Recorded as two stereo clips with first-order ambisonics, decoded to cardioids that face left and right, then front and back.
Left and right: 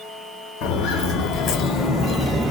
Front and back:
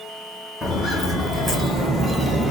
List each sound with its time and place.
0.6 s footsteps: 85° left, 1.3 m; by 2.5 s 115° right, 0.6 m